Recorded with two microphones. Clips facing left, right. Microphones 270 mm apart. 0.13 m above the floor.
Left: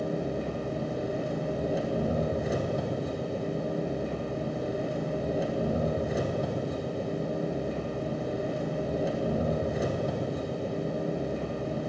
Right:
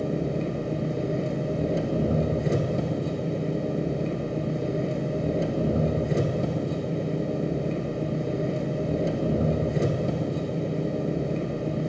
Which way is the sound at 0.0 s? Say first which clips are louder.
Right 4 dB; 30° right (ahead or behind).